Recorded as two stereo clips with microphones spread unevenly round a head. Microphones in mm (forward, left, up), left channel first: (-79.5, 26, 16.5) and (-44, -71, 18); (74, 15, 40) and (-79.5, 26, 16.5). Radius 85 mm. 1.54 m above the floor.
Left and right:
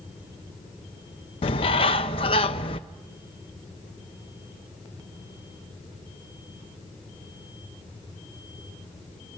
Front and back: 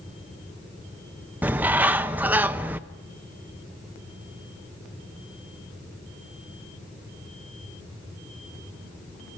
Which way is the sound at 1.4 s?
90° left.